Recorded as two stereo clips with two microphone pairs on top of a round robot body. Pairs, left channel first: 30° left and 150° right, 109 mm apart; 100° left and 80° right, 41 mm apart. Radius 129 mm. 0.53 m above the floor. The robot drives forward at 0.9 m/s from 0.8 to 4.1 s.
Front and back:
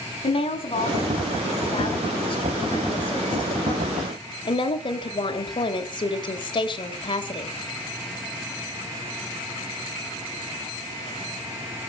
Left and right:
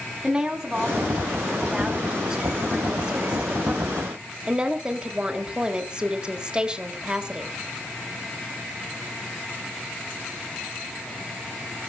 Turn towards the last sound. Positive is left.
turn(degrees=-15)